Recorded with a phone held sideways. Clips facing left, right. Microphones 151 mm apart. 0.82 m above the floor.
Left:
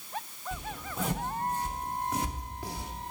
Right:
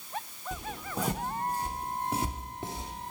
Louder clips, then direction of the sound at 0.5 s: Right 2 dB; 40° right (ahead or behind).